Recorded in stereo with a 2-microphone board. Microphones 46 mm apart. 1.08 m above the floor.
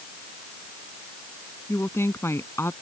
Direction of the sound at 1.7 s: 80° left.